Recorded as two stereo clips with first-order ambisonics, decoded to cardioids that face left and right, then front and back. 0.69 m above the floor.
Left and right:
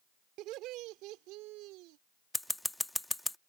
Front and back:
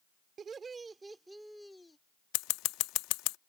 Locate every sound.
0.4 s laughter: 120° right; by 2.0 s 80° right
2.3 s scissors: 5° left